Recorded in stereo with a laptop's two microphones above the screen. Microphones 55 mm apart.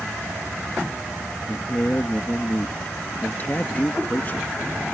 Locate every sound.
1.5 s a man speaking: 35° left (ahead or behind)